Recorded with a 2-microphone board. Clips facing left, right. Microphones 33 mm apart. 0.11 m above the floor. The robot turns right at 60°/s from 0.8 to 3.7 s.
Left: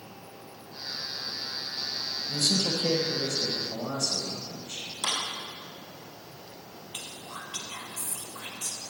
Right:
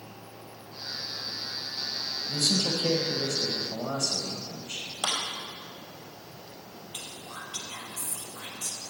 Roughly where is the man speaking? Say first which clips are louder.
Even; behind right.